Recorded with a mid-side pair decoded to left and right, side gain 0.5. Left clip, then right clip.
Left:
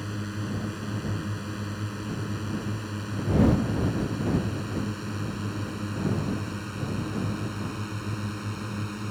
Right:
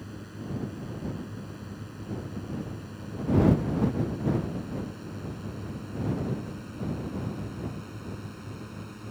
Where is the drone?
55° left; by 9.1 s 50° left.